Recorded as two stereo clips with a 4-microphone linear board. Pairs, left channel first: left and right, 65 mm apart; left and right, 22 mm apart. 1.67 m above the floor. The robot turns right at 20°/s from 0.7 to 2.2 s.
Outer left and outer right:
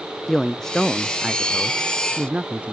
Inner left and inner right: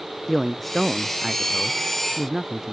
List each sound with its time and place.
0.3 s a man speaking: 175° left; by 2.7 s 155° right